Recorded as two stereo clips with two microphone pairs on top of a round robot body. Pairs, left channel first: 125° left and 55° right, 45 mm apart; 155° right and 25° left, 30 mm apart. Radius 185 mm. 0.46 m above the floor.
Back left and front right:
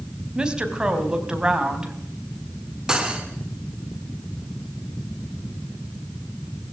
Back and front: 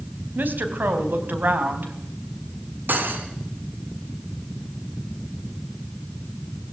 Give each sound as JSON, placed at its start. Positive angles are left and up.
{"t": 0.3, "sound": "a woman speaking", "azimuth_deg": 10, "distance_m": 3.5}
{"t": 2.9, "sound": "cutlery clinking", "azimuth_deg": 15, "distance_m": 3.5}